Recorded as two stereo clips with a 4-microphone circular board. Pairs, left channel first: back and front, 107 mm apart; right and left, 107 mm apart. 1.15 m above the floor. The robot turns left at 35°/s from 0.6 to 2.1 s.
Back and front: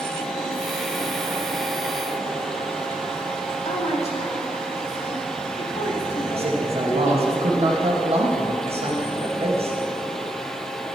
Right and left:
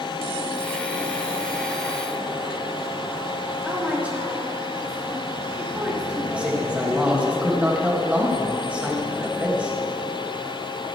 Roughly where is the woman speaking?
Behind.